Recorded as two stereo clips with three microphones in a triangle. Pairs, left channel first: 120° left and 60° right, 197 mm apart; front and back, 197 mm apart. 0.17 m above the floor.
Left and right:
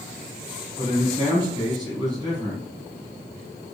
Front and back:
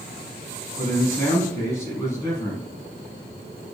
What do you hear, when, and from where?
0.8 s a man speaking: 45° right, 1.2 m